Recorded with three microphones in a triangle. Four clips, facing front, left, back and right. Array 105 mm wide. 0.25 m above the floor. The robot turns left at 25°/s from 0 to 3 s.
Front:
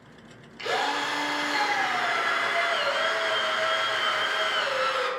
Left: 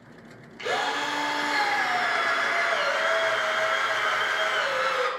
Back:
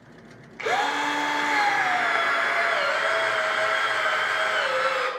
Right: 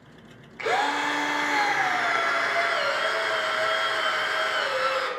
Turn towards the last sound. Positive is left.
turn(degrees=165)